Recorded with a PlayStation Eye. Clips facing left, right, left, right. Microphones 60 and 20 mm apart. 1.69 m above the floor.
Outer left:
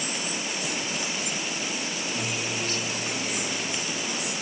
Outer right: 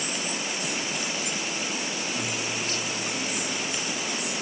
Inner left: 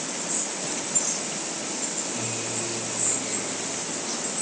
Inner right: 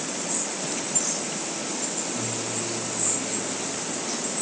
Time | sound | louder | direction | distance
2.1 | a guitar | even, inner right 1 dB | 55° left (ahead or behind) | 2 m